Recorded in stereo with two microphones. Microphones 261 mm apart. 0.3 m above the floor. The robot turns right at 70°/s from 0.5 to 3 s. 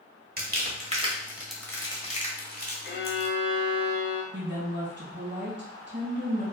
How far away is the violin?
About 0.8 m.